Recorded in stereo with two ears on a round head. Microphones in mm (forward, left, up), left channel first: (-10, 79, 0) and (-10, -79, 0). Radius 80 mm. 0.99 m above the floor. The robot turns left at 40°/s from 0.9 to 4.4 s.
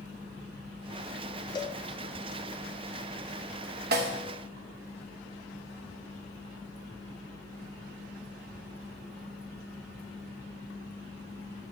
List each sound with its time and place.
1.6 s a cowbell: 25° left (ahead or behind), 0.6 m; by 1.8 s 15° left (ahead or behind), 0.6 m
3.9 s a snare drum: 55° right (ahead or behind), 0.9 m; by 4.2 s 65° right (ahead or behind), 0.9 m